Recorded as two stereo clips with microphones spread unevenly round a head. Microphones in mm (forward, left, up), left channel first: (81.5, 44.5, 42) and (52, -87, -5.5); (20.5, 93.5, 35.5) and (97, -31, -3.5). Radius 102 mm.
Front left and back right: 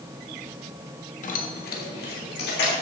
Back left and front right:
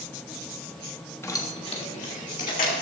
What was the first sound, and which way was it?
Keys jangling, 45° left.